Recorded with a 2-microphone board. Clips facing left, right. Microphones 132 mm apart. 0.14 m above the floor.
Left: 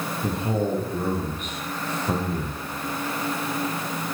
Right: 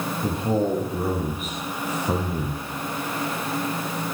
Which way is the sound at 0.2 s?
Centre (ahead or behind).